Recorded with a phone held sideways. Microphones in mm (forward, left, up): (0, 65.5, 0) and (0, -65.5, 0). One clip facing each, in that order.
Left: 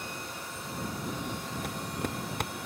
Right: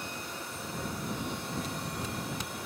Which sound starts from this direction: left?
Footsteps, at 1.6 s.